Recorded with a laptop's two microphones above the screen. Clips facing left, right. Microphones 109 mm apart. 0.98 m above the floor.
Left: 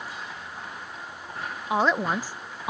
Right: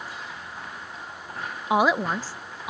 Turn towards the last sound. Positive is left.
turn(degrees=30)  # may be behind; listen again after turning